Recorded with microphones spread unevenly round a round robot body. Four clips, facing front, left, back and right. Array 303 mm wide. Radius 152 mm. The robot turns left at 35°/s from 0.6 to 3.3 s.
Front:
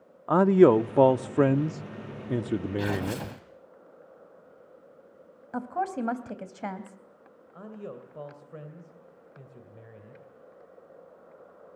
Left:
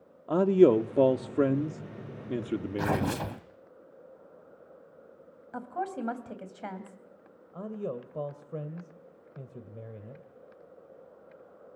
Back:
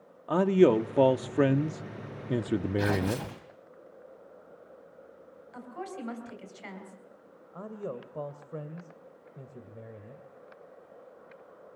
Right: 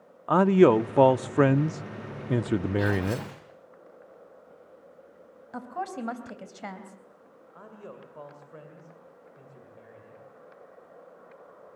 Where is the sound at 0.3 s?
15° right, 0.6 m; by 3.2 s 105° right, 0.6 m.